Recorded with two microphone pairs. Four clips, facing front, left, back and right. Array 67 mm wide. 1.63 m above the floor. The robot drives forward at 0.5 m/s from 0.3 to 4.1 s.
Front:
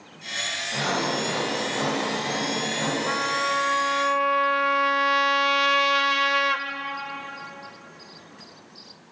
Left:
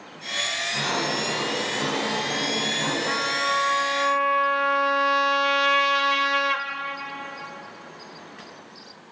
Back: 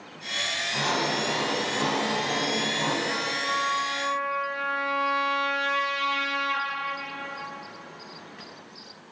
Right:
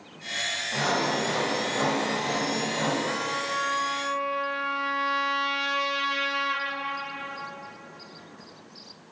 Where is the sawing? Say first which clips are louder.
Right 2 dB, front 2 dB; 60° right, 9 m; by 3.0 s 65° right, 8.5 m.